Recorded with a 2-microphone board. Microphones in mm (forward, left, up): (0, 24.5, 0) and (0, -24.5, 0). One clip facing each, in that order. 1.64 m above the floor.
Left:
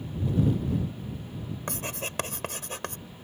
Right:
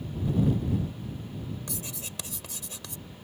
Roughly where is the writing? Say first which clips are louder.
Left 6 dB; left.